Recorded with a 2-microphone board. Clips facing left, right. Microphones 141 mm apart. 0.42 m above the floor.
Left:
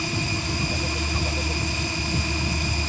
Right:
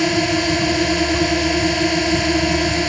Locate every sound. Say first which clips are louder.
0.0 s a drone: right 12 dB; 75° right (ahead or behind)